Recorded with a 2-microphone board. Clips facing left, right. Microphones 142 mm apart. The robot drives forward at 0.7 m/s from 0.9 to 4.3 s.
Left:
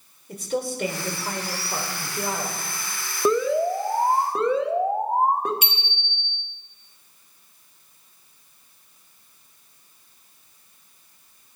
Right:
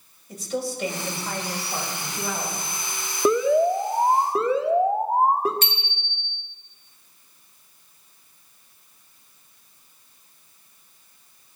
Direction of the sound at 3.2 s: 10° right (ahead or behind).